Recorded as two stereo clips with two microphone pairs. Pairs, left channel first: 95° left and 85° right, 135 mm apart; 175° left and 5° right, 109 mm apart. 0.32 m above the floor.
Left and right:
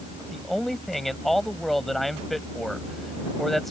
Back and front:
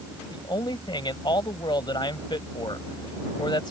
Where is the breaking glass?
I don't hear breaking glass.